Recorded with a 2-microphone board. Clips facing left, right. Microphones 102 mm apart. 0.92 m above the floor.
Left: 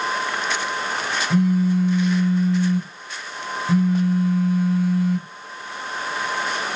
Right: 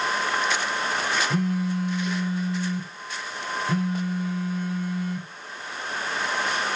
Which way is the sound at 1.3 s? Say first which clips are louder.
Left 7 dB; centre (ahead or behind).